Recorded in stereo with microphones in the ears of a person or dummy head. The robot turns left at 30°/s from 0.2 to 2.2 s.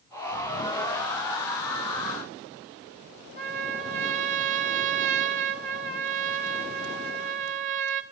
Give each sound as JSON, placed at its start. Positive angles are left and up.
{"t": 3.4, "sound": "a trumpet", "side_deg": -40, "distance_m": 0.7}